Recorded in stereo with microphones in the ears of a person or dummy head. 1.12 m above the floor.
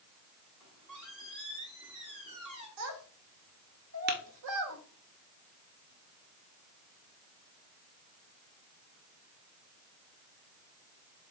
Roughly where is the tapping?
Right.